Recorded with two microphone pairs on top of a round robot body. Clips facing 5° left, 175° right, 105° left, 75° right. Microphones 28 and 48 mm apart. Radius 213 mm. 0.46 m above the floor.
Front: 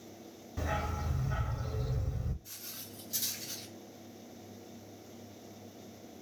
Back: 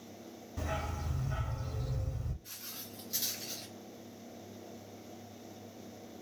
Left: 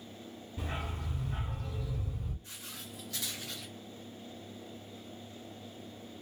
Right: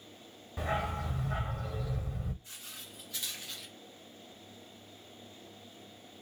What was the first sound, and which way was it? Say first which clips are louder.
A dog barking: front 3 dB, right 7 dB; 80° right.